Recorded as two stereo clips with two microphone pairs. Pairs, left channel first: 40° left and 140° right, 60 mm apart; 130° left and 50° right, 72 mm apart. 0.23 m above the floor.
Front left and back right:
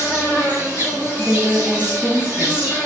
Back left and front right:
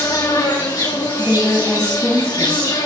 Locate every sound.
0.0 s an insect: 150° left, 2.5 m
1.2 s a woman speaking: 130° right, 1.3 m